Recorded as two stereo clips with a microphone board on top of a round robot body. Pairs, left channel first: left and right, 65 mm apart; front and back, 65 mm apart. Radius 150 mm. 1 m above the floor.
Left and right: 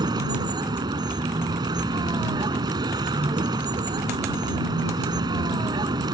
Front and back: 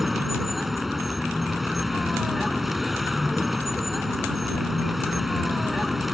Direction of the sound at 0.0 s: 95° right.